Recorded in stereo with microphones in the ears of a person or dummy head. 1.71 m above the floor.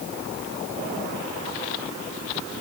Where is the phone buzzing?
I don't hear a phone buzzing.